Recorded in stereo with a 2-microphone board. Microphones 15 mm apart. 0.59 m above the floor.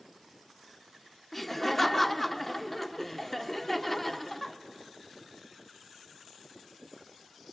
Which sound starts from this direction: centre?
Laughter, at 1.3 s.